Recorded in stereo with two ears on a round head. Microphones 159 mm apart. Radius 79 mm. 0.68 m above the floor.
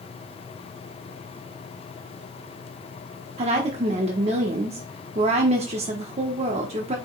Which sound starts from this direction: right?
A woman speaking, at 3.4 s.